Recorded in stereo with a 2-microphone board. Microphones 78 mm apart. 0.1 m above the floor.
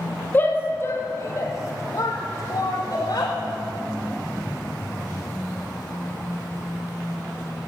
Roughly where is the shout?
Left.